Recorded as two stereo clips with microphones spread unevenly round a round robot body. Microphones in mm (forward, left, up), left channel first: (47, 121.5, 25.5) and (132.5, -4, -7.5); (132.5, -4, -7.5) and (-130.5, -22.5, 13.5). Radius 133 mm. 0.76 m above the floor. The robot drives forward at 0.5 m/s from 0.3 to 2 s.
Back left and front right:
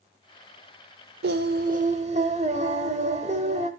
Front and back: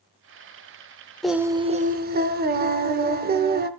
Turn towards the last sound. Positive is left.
turn(degrees=-125)